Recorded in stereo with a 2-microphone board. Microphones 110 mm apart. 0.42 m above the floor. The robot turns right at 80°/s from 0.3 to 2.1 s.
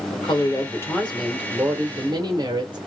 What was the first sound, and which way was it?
A woman speaking, 105° left.